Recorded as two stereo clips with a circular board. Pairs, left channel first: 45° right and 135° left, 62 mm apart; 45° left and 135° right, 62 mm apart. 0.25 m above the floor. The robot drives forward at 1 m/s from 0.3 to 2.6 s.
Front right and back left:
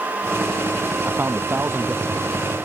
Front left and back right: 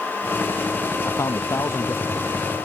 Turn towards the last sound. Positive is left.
turn(degrees=90)